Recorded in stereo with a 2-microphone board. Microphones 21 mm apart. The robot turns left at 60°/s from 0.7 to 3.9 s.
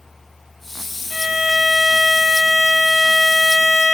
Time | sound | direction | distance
1.1 | a violin | 10° left | 1.0 m